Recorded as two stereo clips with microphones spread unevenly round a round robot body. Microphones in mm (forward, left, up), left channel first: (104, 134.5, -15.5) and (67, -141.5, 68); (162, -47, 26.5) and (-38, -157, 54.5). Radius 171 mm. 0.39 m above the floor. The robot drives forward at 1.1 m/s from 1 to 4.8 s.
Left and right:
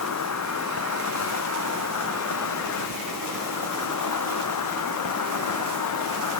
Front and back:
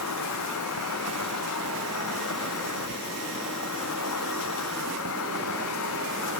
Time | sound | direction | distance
0.0 | an insect | 55° left | ?